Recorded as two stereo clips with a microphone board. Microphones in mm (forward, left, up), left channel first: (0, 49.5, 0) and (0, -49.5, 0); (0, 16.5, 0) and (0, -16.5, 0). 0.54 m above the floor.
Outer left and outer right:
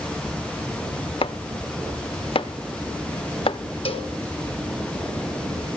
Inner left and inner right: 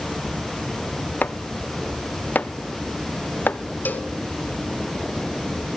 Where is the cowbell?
80° left, 1.2 m.